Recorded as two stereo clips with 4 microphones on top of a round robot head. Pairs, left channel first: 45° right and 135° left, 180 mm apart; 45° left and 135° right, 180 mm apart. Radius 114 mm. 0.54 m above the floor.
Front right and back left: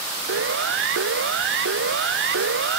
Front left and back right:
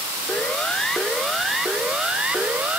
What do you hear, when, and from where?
0.3 s a siren: 130° left; by 2.8 s 145° left